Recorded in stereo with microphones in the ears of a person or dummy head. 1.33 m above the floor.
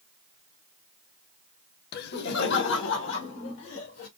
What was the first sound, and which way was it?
Laughter, 55° left (ahead or behind).